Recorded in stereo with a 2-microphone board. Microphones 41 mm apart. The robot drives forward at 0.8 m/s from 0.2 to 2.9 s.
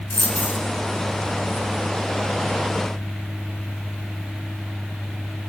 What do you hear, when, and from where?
0.1 s a dropped coin: 50° left (ahead or behind), 1.3 m; by 0.6 s 65° left (ahead or behind), 1.1 m